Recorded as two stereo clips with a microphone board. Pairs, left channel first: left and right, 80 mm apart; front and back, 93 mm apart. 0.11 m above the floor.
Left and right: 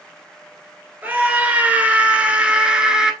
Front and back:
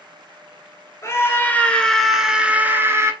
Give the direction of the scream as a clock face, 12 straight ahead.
1 o'clock.